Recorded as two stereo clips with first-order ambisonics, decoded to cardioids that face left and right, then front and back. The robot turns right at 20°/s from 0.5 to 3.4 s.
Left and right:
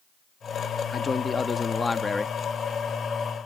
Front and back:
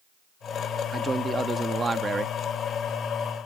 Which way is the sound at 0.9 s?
125° left.